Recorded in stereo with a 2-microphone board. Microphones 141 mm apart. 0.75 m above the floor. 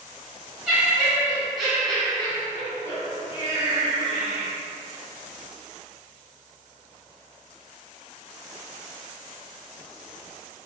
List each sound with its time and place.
0.7 s laughter: 5° right (ahead or behind), 1.8 m; by 4.5 s 25° left (ahead or behind), 1.4 m